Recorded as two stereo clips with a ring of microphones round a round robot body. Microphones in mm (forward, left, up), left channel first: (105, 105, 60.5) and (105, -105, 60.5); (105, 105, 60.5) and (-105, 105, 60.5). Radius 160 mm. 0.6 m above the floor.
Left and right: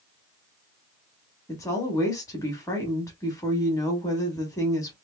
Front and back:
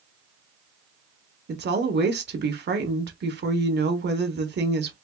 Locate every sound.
1.5 s a woman speaking: 165° left, 1.3 m